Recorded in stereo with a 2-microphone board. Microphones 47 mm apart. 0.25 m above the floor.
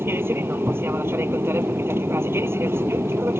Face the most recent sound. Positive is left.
turn(degrees=-55)  # may be behind; listen again after turning